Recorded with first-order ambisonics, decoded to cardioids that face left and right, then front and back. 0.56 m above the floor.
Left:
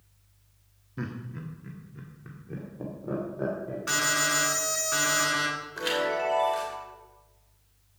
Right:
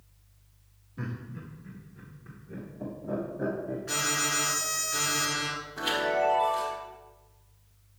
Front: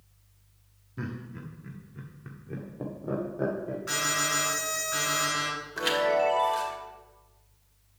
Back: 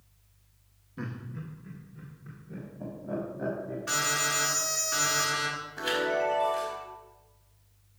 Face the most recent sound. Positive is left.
turn(degrees=25)